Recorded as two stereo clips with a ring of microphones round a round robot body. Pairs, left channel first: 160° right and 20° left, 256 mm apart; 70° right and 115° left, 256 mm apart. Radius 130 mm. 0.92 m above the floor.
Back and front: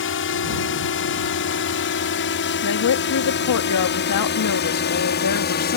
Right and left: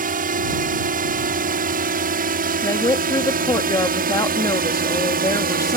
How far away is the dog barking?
No dog barking in this recording.